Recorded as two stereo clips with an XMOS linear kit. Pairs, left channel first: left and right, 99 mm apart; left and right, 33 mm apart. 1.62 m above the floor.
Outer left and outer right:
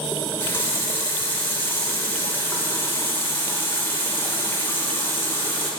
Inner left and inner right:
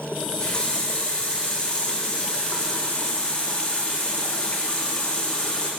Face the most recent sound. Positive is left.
turn(degrees=25)  # may be behind; listen again after turning